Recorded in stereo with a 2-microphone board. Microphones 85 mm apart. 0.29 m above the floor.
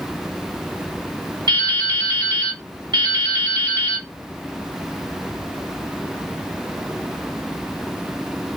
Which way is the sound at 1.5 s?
60° right (ahead or behind).